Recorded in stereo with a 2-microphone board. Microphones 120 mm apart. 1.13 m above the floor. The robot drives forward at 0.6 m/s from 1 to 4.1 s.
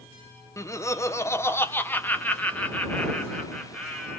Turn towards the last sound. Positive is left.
turn(degrees=10)  # may be behind; listen again after turning